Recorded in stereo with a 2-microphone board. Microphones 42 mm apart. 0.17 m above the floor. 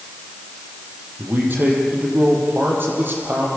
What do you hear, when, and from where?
1.2 s a man speaking: 55° right (ahead or behind), 6.5 m